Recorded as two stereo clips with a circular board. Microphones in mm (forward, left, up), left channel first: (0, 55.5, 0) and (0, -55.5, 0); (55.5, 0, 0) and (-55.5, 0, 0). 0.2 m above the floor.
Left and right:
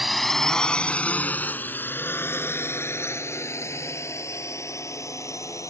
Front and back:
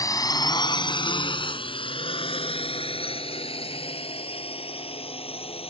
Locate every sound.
0.0 s a drone: 5° right; by 5.7 s 30° left